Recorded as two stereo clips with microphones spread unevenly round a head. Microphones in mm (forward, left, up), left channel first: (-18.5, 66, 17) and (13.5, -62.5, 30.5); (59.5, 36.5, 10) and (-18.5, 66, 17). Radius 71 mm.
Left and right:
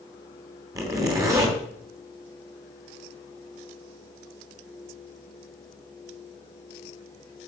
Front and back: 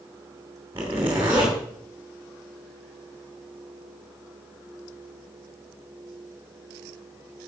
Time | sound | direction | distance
0.8 | a zipper | 135° right | 2.5 m